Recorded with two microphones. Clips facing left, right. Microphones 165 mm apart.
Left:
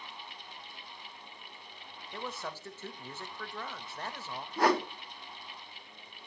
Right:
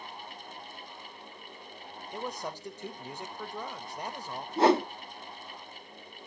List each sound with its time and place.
2.1 s a man speaking: 15° right (ahead or behind), 0.8 m
4.6 s a whoosh: 25° right (ahead or behind), 0.6 m